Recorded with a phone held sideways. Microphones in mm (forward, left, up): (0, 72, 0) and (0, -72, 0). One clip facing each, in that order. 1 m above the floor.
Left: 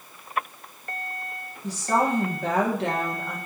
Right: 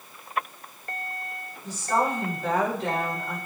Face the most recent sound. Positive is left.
turn(degrees=75)  # may be behind; listen again after turning